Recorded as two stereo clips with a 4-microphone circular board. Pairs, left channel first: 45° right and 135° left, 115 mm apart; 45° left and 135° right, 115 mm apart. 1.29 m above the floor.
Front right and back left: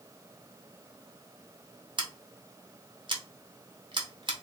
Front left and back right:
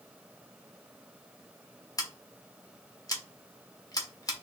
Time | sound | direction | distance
2.0 | scissors | 95° left | 0.8 m